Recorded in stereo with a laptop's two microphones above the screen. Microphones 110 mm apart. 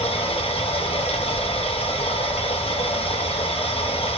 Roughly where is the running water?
Left.